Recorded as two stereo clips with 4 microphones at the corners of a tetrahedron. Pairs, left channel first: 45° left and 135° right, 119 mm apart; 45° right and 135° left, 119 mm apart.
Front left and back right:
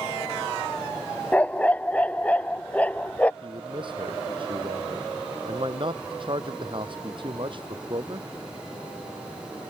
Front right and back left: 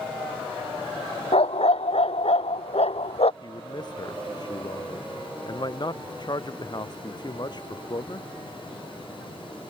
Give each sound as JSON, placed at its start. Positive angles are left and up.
{"t": 1.3, "sound": "a dog barking", "azimuth_deg": -30}
{"t": 3.4, "sound": "a man speaking", "azimuth_deg": -95}